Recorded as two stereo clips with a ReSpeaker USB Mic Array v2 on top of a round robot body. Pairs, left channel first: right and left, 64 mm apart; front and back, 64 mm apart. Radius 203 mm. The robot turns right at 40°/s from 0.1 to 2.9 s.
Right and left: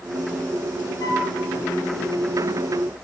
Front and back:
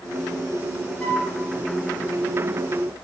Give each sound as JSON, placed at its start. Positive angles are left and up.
{"t": 1.0, "sound": "a flute", "azimuth_deg": -75, "distance_m": 3.0}